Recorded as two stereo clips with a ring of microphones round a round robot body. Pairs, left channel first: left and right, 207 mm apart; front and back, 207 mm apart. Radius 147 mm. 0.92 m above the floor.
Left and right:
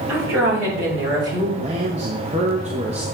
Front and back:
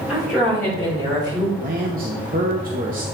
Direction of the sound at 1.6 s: 145° right.